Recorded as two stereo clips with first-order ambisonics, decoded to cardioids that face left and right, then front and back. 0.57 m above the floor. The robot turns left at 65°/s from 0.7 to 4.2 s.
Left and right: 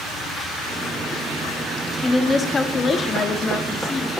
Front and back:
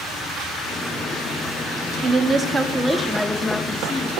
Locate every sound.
2.0 s a woman speaking: 170° left, 0.7 m; by 4.1 s 30° left, 0.7 m